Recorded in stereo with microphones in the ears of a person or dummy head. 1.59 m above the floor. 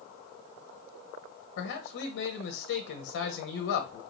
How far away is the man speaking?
About 0.9 m.